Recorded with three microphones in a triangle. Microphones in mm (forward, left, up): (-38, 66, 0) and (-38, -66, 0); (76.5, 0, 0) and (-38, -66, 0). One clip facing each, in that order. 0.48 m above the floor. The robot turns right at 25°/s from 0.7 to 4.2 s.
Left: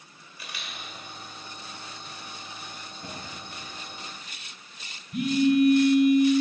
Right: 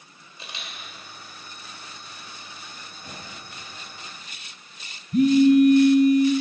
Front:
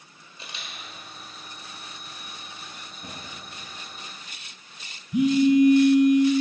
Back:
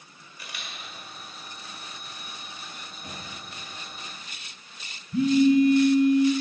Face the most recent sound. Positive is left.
turn(degrees=-45)